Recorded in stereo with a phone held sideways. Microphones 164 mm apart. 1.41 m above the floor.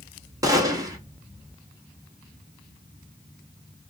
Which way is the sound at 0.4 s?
20° right (ahead or behind).